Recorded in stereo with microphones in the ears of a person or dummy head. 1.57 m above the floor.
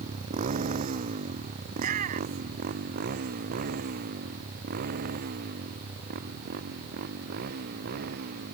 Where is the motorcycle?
40° right (ahead or behind); by 8.5 s 55° right (ahead or behind).